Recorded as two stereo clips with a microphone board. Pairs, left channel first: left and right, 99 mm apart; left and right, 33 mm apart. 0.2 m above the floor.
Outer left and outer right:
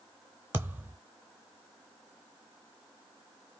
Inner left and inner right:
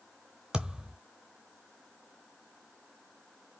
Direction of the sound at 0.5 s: 20° right (ahead or behind).